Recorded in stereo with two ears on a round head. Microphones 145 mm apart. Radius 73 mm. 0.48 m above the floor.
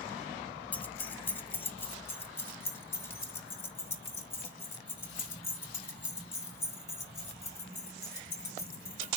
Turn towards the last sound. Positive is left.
turn(degrees=15)  # may be behind; listen again after turning